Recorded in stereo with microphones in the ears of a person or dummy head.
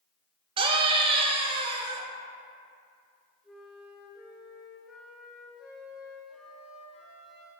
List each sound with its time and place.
0.6 s a scream: 25° right (ahead or behind), 0.8 m
3.4 s a flute: 5° right (ahead or behind), 1.7 m